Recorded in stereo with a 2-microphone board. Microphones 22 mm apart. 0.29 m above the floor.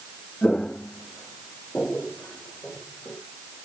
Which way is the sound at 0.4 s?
65° left (ahead or behind).